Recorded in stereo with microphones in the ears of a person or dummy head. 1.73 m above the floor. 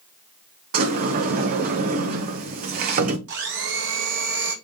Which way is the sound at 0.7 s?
55° right (ahead or behind).